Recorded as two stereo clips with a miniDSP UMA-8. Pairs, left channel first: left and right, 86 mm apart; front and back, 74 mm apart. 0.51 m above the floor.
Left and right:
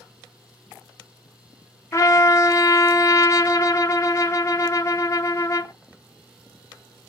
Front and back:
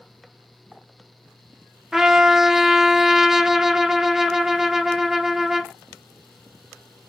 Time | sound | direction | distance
1.9 | a trumpet | 100° left | 0.6 m